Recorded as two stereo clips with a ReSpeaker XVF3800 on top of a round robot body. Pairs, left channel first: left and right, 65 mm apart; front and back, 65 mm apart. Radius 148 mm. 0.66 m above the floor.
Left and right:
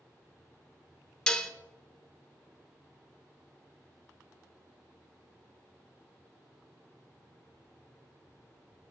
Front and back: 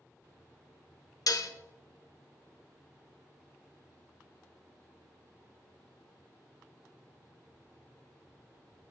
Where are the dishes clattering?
10° left, 0.6 m.